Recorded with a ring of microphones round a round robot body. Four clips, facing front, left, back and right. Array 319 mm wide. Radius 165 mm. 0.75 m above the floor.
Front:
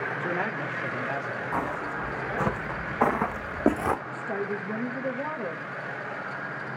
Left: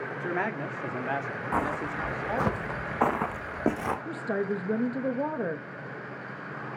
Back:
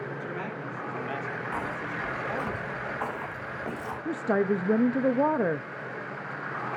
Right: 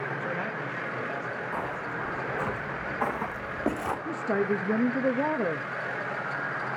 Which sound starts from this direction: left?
Footsteps, at 1.5 s.